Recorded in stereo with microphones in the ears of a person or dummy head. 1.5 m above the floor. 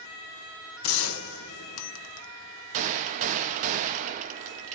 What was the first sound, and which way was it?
A gunshot, 75° left (ahead or behind).